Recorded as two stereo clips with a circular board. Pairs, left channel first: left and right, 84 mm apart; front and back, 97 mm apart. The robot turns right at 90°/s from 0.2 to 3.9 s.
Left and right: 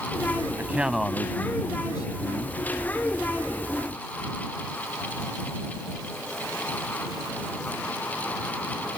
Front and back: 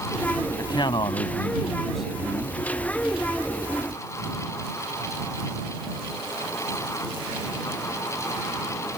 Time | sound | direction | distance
0.6 | a man speaking | 35° right | ?